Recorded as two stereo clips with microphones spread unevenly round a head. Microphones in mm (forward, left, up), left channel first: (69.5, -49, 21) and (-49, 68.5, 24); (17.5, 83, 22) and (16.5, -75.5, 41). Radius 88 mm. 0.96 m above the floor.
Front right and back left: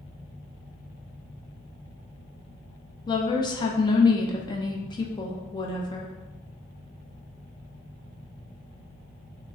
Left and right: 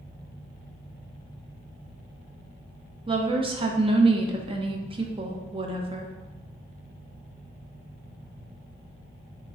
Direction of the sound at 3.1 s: 65° right.